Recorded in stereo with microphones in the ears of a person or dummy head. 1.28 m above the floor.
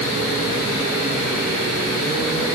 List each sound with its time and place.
Only background noise.